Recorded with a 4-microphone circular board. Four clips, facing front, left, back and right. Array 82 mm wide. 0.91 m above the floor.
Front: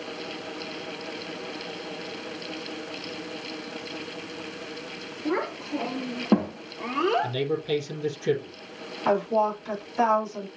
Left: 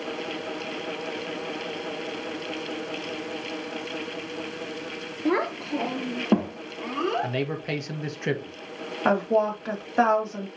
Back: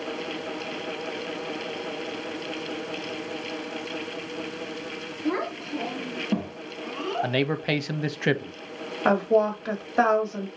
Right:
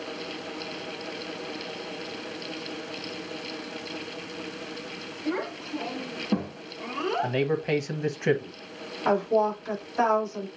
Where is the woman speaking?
130° left, 2.5 m.